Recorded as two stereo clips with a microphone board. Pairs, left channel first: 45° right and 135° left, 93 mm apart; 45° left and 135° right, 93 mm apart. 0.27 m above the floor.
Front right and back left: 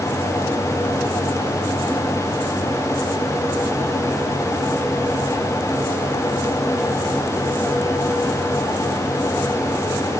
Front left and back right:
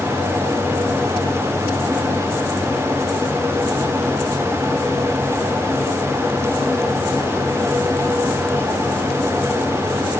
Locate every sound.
Only background noise.